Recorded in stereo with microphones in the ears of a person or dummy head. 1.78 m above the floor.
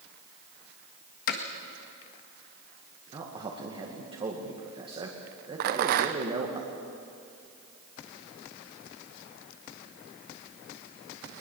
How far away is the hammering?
About 1.6 m.